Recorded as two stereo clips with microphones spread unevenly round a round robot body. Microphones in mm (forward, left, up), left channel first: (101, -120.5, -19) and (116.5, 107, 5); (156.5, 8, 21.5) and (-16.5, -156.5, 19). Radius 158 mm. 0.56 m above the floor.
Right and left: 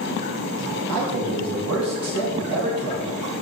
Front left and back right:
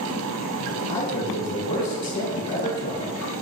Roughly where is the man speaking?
Left.